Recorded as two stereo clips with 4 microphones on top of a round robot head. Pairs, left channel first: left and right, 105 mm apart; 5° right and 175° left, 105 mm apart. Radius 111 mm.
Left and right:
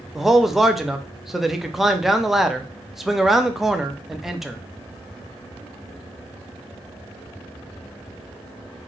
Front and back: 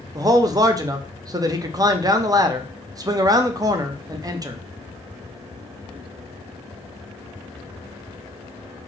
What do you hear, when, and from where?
0.1 s a man speaking: 175° right, 0.6 m